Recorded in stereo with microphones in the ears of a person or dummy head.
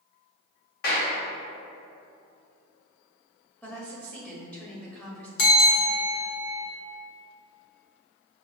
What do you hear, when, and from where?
0.8 s a clap: 55° left (ahead or behind), 1.3 m
3.6 s a woman speaking: 10° left (ahead or behind), 0.8 m
5.4 s a bell: 75° left (ahead or behind), 0.8 m